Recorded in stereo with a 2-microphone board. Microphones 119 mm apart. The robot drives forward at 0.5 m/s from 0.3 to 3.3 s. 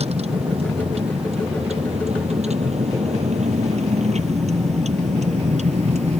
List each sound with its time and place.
0.0 s a vehicle: 60° right (ahead or behind); by 6.2 s 70° right (ahead or behind)